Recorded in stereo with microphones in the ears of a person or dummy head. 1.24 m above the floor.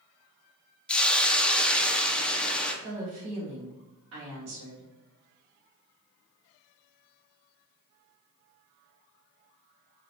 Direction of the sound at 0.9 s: 5° left (ahead or behind).